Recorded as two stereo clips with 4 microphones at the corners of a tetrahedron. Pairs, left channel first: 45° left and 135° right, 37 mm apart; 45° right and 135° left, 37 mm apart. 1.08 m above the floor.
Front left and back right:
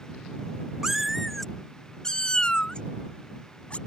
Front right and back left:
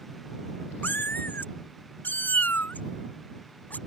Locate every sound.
0.8 s a cat meowing: 60° right; by 3.8 s 10° right